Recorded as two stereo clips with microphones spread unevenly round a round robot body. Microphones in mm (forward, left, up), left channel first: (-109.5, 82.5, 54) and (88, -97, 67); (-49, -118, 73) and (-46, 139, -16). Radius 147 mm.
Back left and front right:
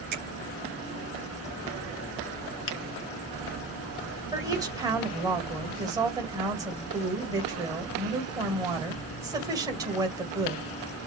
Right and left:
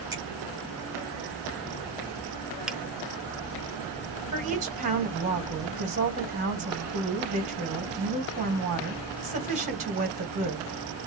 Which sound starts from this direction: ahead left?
A woman speaking, at 4.3 s.